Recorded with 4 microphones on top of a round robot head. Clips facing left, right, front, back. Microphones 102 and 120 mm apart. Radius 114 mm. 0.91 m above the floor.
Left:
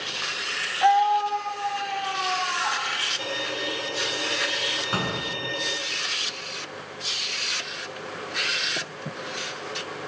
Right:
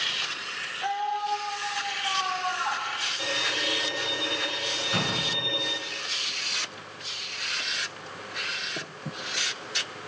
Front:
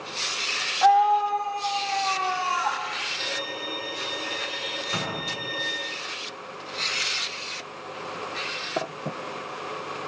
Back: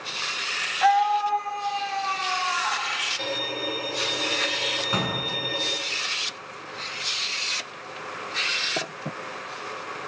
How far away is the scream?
About 2 m.